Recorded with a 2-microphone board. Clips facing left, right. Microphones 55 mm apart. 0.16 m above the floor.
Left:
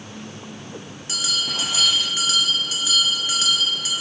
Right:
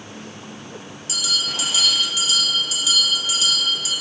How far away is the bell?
About 1.4 m.